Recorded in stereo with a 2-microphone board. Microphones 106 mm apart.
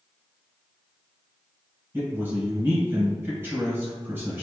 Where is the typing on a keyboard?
I don't hear typing on a keyboard.